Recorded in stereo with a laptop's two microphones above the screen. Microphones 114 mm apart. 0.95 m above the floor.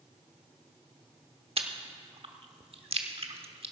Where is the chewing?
60° right (ahead or behind), 0.9 m.